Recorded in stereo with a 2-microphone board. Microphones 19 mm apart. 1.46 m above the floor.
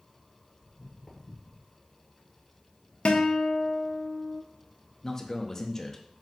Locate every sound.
0.6 s footsteps: 10° left (ahead or behind), 1.5 m; by 1.7 s 15° right (ahead or behind), 1.5 m
3.0 s a guitar: 70° left (ahead or behind), 0.5 m
5.0 s a man speaking: 25° left (ahead or behind), 0.6 m